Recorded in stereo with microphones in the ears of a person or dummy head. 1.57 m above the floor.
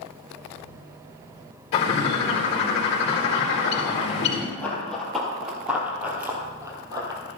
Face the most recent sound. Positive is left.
turn(degrees=-20)  # may be behind; listen again after turning